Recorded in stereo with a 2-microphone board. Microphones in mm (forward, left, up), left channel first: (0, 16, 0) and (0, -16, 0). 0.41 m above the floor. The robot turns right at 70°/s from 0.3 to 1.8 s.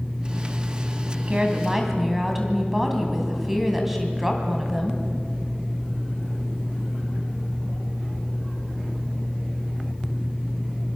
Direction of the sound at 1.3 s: 45° right.